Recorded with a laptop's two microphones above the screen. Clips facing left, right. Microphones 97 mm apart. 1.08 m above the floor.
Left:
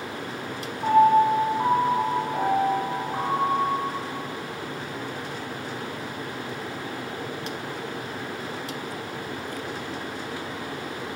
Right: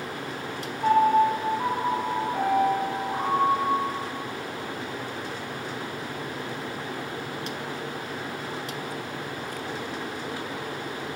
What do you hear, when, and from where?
0.8 s a piano: 20° left (ahead or behind), 2 m